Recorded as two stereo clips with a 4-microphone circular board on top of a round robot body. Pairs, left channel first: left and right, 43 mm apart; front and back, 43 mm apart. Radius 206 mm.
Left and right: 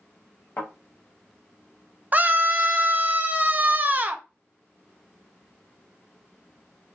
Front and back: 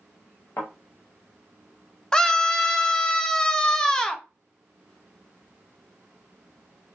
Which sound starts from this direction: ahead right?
A scream, at 2.1 s.